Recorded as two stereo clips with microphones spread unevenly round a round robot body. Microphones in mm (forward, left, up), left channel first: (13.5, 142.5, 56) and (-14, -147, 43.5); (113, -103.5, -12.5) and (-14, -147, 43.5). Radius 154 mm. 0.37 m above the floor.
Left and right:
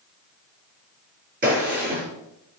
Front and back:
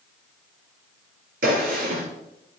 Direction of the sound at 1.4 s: 160° right.